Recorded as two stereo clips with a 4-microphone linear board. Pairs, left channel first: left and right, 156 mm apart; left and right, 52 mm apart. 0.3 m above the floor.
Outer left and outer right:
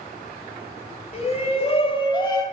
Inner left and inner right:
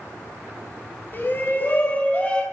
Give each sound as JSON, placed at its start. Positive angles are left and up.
{"t": 1.1, "sound": "a shout", "side_deg": 45, "distance_m": 2.0}